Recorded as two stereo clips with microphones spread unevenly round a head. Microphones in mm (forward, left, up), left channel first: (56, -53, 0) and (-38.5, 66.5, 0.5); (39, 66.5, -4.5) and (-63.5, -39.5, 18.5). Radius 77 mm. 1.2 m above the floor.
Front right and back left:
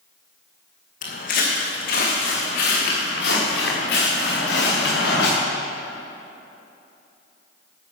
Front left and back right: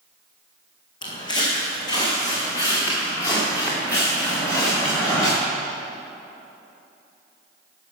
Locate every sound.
1.0 s footsteps: 20° right, 3 m; by 5.3 s 30° right, 6.5 m